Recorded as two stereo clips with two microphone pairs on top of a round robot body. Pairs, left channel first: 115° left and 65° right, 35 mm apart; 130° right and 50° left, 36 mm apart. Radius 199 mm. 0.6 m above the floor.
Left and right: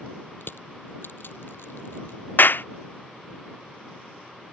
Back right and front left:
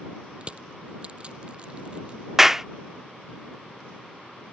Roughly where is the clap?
Behind left.